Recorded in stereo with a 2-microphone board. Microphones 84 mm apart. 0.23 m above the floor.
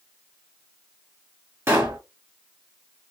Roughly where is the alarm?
No alarm in this recording.